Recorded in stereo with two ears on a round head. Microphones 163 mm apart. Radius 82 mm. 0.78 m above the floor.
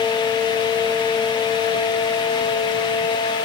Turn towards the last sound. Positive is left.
No sound to turn to.